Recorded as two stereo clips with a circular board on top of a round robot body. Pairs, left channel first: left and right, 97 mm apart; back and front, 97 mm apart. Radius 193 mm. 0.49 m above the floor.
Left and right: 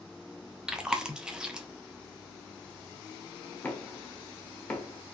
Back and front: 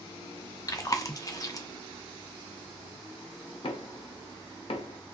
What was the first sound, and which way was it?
Chewing, 165° right.